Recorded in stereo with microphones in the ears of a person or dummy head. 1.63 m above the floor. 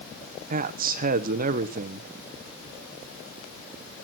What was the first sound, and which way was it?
A man speaking, 45° right (ahead or behind).